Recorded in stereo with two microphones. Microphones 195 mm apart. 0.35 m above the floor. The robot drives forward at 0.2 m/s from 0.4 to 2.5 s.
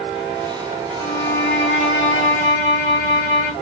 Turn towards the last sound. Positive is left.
turn(degrees=35)  # may be behind; listen again after turning